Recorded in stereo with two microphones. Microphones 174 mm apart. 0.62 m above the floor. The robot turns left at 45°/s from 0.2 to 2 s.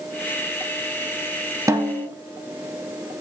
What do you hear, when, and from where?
1.7 s a snare drum: 20° right (ahead or behind), 0.6 m; by 2.1 s 5° right (ahead or behind), 0.6 m